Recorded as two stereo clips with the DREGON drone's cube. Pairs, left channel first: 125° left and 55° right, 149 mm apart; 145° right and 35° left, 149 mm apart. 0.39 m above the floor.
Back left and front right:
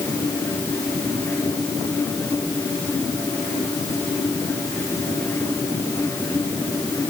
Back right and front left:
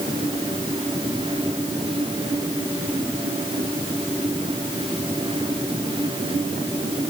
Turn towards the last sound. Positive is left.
No sound to turn to.